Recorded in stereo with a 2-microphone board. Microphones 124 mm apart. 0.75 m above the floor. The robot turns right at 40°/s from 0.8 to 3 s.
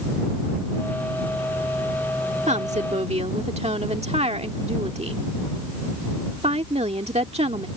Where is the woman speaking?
70° right (ahead or behind); by 7.7 s 60° right (ahead or behind).